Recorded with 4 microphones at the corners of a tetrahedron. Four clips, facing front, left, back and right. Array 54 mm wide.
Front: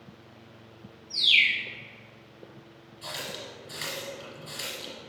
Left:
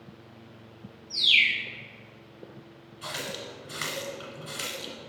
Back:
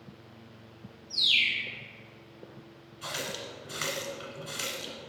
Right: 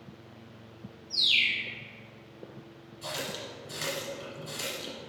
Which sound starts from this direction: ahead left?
A bird, at 1.1 s.